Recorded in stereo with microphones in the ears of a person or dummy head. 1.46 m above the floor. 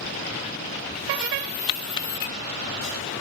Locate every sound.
1.7 s a splash: 20° left (ahead or behind)